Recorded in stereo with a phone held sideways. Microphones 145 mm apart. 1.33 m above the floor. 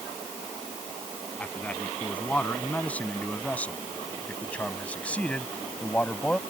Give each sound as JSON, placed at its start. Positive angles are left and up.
{"t": 1.4, "sound": "a man speaking", "side_deg": 10}